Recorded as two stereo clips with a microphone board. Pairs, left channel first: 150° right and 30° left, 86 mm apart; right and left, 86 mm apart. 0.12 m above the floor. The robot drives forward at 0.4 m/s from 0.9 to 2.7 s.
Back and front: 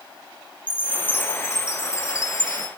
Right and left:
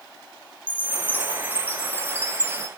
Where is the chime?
115° right, 1.0 m; by 2.7 s 155° right, 1.3 m.